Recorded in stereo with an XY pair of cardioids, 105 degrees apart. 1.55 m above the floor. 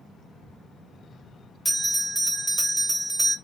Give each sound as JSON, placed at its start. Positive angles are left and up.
{"t": 1.6, "sound": "a bell", "azimuth_deg": -10, "distance_m": 1.4}